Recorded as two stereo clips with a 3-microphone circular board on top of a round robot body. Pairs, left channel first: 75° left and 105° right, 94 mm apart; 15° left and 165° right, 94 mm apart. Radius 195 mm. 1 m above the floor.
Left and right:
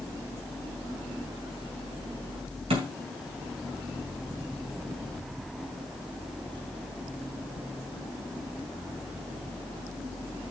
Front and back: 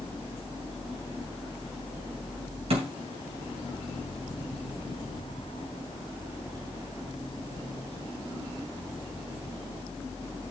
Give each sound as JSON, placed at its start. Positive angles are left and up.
{"t": 2.7, "sound": "a thud", "azimuth_deg": -135, "distance_m": 3.0}